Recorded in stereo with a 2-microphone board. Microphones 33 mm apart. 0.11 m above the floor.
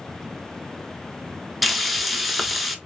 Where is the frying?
5° right (ahead or behind), 0.5 m.